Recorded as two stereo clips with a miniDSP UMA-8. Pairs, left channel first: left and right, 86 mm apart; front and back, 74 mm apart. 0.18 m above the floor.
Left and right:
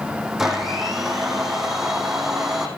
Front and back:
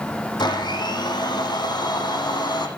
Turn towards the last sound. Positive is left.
turn(degrees=-5)